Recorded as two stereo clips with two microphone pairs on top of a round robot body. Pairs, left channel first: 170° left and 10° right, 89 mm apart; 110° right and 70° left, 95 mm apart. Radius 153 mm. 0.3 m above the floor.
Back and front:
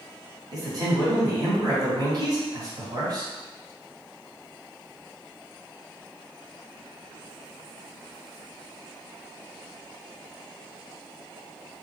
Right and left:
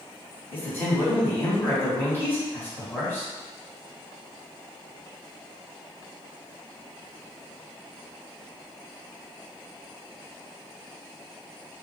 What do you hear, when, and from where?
0.5 s a man speaking: 35° right, 1.9 m